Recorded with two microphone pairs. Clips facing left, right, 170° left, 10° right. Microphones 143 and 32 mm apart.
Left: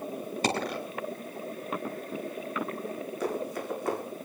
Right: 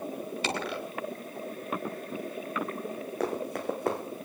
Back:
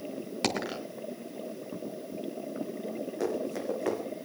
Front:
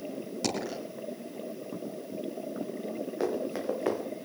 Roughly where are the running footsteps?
Right.